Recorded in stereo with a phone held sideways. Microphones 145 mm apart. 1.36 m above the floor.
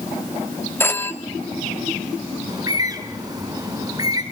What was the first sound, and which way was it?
A phone ringing, 15° left (ahead or behind).